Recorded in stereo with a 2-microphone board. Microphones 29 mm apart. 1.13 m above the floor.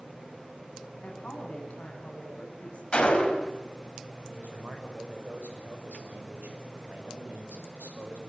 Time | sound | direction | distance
1.0 | a woman speaking | 55° left (ahead or behind) | 8 m
2.9 | a gunshot | 40° left (ahead or behind) | 4.5 m
4.3 | a man speaking | 75° right (ahead or behind) | 6 m